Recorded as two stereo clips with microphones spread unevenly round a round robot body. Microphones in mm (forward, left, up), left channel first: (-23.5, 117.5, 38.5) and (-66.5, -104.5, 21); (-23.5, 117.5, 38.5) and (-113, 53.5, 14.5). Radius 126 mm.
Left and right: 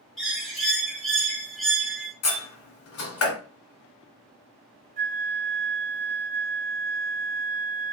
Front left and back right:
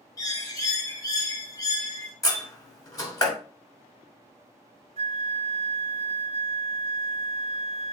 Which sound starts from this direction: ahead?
A bird, at 0.2 s.